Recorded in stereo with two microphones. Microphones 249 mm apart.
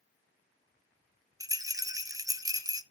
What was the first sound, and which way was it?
A rattle, 15° right (ahead or behind).